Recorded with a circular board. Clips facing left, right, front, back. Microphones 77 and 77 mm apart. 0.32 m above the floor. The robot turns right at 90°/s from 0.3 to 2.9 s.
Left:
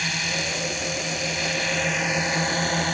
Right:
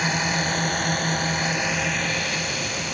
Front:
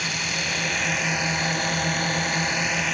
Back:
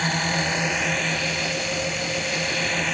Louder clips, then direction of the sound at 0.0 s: Right 5 dB, back 5 dB; 145° right.